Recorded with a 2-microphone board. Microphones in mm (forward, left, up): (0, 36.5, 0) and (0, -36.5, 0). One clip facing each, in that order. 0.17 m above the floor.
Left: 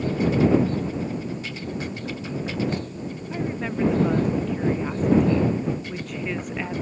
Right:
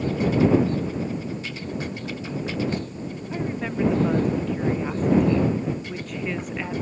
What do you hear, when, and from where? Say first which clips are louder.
3.3 s a woman speaking: even; centre (ahead or behind)